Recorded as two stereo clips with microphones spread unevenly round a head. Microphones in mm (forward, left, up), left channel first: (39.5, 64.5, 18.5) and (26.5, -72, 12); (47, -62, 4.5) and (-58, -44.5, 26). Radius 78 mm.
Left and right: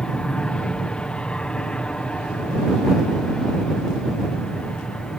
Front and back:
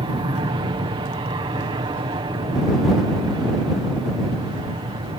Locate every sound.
0.0 s an aircraft: 165° left